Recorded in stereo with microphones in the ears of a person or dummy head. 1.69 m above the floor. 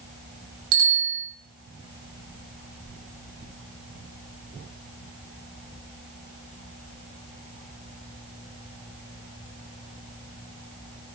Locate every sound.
0.7 s a bicycle bell: 85° right, 7.5 m